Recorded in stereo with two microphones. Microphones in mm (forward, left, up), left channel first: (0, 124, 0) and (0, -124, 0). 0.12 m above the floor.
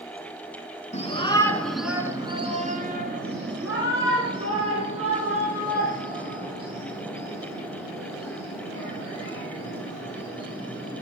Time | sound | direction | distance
0.9 | a shout | 25° left (ahead or behind) | 1.6 m